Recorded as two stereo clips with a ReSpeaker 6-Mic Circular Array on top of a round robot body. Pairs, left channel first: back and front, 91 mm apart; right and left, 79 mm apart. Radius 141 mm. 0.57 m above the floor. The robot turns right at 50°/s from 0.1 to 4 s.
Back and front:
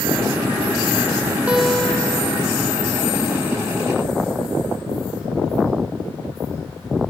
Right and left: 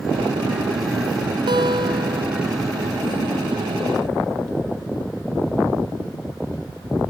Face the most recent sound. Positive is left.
turn(degrees=-155)